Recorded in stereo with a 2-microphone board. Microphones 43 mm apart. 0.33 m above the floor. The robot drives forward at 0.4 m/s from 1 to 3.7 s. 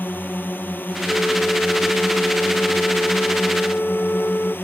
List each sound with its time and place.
0.0 s a drone: 50° left (ahead or behind); by 4.7 s 55° left (ahead or behind)
1.1 s a flute: 40° left (ahead or behind)